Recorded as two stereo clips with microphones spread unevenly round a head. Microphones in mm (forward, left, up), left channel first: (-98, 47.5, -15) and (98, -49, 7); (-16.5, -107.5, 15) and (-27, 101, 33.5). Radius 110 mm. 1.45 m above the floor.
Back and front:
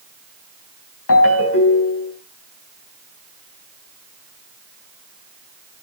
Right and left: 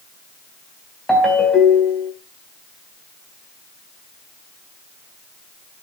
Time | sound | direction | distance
1.1 | a ringtone | 175° right | 4 m